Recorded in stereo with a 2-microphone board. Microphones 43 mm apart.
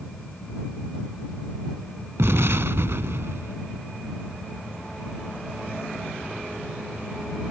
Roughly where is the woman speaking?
I don't hear a woman speaking.